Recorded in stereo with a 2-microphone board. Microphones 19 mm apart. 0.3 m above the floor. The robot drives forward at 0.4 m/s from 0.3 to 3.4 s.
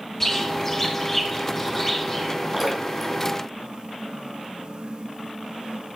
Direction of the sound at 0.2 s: 20° left (ahead or behind).